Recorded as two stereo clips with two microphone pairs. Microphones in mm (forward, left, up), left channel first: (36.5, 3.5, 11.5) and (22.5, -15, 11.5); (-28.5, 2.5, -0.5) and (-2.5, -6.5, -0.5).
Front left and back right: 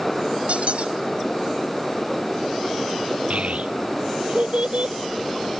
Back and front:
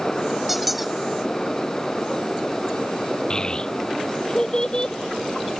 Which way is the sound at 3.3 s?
140° right.